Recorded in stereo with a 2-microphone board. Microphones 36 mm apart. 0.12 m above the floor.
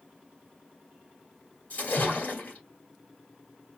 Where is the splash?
50° left (ahead or behind), 1.7 m.